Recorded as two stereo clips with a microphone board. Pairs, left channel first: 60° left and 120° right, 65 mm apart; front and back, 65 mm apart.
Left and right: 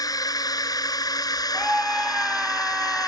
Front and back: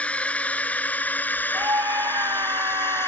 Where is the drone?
70° left; by 3.1 s 50° left.